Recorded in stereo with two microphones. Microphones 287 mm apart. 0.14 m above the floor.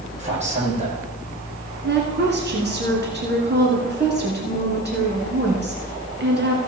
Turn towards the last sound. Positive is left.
turn(degrees=-35)  # may be behind; listen again after turning